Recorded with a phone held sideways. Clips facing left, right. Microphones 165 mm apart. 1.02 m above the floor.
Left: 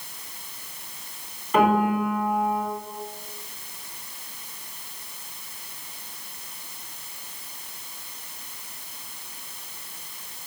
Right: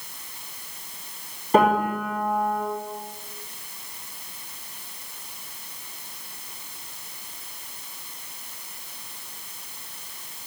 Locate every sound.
1.5 s a piano: 40° right (ahead or behind), 3 m